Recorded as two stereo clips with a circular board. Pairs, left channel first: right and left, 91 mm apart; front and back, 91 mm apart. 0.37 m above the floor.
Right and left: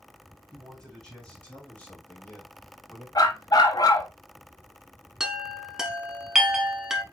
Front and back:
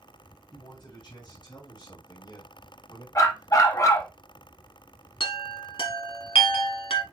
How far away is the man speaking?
About 2.5 m.